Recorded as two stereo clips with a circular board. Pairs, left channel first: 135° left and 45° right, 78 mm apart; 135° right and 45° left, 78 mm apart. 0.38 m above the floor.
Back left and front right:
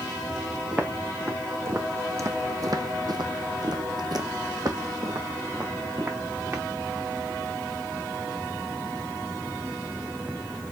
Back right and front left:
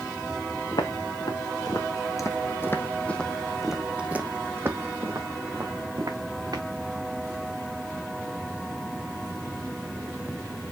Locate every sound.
0.7 s footsteps: 115° right, 1.6 m; by 6.6 s 10° left, 2.0 m